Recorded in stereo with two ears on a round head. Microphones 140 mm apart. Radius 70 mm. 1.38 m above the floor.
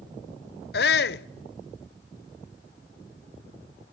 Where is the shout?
70° left (ahead or behind), 0.8 m.